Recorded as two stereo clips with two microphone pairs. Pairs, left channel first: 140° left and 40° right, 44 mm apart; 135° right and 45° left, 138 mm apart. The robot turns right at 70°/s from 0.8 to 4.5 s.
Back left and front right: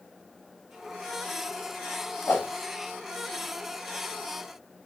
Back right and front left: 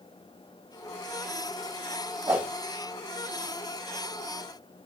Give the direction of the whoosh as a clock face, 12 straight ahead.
8 o'clock.